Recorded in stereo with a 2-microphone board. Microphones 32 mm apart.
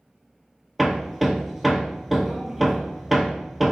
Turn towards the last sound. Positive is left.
turn(degrees=-10)  # may be behind; listen again after turning